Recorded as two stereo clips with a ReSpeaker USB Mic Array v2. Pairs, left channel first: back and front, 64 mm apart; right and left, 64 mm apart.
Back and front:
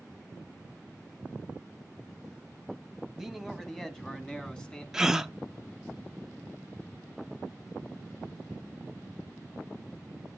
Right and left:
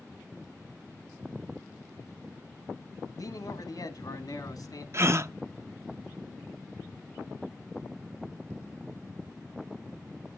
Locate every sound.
3.1 s a man speaking: 85° right, 1.2 m; by 4.8 s 105° right, 2.5 m
4.9 s a gasp: 80° left, 0.5 m